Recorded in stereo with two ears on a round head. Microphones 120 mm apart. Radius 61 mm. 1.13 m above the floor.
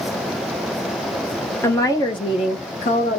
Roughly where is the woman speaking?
Centre.